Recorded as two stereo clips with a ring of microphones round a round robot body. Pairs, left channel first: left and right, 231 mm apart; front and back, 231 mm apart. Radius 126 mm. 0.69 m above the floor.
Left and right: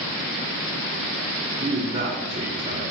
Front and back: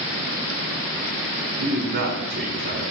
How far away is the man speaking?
About 4.5 m.